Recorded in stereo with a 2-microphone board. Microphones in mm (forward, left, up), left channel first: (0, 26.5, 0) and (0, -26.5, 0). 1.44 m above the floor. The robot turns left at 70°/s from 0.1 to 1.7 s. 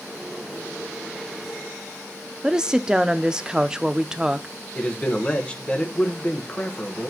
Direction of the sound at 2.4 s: 15° right (ahead or behind).